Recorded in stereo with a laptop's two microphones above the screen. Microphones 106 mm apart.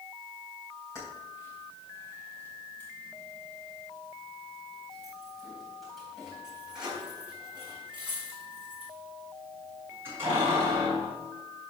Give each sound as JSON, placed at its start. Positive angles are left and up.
{"t": 0.9, "sound": "keys jangling", "side_deg": 30, "distance_m": 5.0}